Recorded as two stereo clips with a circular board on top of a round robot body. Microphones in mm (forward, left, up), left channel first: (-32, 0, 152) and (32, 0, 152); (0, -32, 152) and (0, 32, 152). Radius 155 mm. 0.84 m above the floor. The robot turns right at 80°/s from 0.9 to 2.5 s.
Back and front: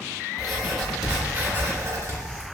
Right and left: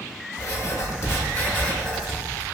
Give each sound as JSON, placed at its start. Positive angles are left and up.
{"t": 0.4, "sound": "writing", "azimuth_deg": -90, "distance_m": 1.1}